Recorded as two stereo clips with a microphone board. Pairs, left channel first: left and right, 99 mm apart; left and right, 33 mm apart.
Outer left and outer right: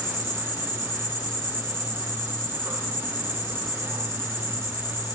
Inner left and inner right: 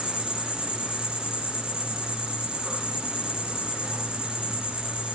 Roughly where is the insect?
Right.